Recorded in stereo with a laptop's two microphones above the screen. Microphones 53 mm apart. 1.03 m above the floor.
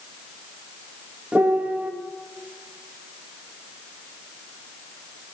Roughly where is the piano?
Right.